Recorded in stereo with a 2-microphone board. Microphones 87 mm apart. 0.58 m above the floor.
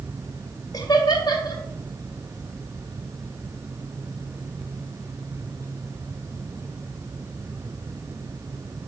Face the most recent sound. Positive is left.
turn(degrees=50)  # may be behind; listen again after turning